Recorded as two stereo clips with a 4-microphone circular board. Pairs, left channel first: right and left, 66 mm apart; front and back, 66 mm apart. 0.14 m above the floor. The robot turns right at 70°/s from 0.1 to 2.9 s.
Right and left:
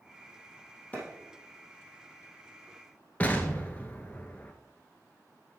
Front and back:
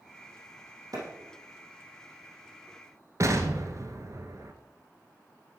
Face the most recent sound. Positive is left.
turn(degrees=-150)